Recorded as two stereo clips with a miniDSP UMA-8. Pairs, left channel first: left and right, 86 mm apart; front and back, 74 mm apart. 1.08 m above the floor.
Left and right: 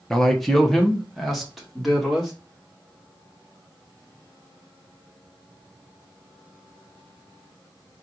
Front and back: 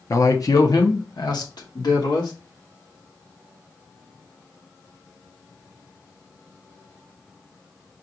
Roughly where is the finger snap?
I don't hear a finger snap.